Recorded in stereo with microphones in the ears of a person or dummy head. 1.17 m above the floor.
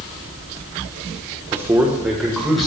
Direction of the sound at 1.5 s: 15° right (ahead or behind).